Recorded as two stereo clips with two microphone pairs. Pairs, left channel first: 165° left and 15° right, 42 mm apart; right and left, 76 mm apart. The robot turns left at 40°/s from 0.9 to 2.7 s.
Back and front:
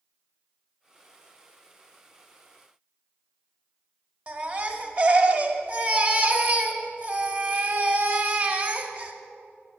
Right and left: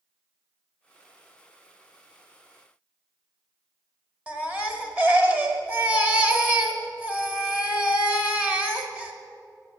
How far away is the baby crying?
About 0.9 m.